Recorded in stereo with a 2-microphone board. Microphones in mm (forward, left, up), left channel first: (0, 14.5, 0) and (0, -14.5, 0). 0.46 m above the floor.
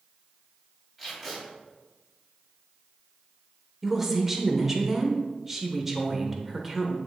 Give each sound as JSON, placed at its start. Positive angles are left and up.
{"t": 1.0, "sound": "tape being pulled", "side_deg": 0, "distance_m": 3.0}
{"t": 3.8, "sound": "a woman speaking", "side_deg": -15, "distance_m": 1.1}